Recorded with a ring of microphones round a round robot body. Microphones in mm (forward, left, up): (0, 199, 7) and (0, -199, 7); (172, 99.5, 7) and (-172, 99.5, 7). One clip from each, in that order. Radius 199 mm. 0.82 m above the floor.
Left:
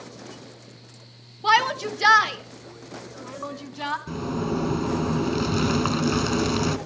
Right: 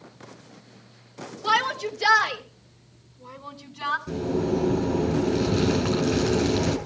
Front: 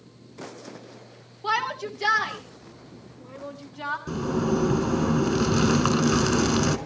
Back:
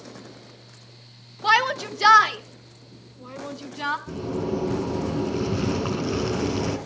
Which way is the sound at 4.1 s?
15° left.